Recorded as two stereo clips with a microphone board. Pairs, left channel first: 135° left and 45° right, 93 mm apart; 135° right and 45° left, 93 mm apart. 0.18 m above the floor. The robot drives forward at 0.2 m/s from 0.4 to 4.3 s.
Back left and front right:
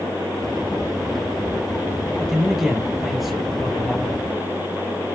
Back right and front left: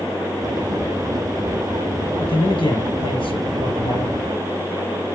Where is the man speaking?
130° right, 3.5 m; by 4.2 s 135° right, 3.5 m.